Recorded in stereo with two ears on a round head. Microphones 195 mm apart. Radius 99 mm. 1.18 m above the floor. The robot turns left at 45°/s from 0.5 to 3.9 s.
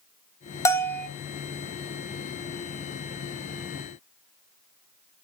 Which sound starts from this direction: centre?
A bell, at 0.7 s.